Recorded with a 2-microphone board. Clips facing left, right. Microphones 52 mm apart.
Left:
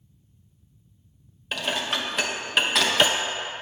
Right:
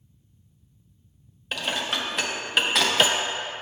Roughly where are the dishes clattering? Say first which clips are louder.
Left 1 dB; centre.